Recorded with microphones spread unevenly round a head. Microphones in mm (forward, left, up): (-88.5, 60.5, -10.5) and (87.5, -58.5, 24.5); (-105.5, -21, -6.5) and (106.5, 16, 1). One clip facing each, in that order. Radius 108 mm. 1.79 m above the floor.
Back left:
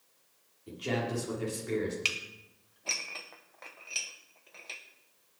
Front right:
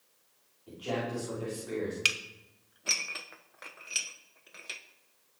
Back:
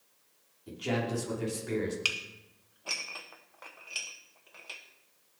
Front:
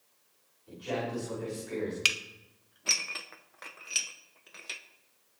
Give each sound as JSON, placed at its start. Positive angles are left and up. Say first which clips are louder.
{"t": 0.7, "sound": "a man speaking", "louder": "back left 1 dB, back 2 dB", "azimuth_deg": -155, "distance_m": 6.0}
{"t": 2.0, "sound": "dishes clattering", "louder": "even, front 1 dB", "azimuth_deg": -5, "distance_m": 0.8}